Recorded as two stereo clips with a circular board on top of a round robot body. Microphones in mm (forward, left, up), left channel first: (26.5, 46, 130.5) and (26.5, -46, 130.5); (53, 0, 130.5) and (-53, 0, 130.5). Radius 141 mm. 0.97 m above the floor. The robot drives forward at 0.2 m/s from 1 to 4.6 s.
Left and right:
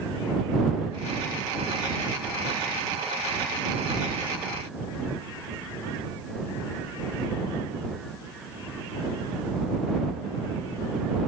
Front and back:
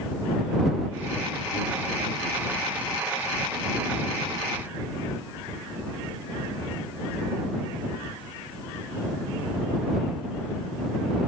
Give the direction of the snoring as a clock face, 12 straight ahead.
I don't hear snoring.